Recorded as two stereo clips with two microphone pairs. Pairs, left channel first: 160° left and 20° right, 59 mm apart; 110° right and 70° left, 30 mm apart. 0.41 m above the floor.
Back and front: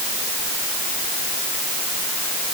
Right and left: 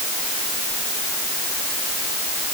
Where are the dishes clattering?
No dishes clattering in this recording.